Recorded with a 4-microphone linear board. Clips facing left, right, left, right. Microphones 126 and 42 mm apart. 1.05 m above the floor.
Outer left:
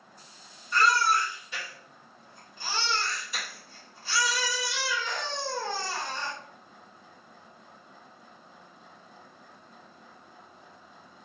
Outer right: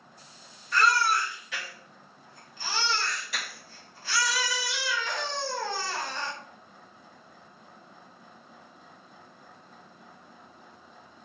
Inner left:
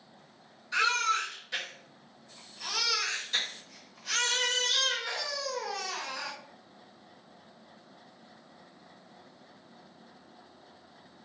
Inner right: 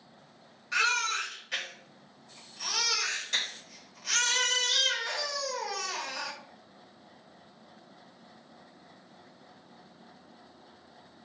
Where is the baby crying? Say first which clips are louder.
Even, inner left 1 dB; 80° right, 1.5 m.